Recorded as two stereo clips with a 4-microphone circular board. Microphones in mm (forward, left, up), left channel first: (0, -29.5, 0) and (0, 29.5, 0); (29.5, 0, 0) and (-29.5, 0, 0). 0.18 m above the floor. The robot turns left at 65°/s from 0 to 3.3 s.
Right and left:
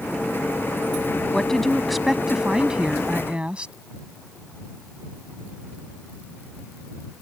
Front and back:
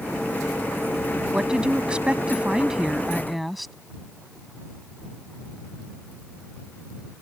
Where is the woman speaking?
140° right; by 3.7 s 90° left.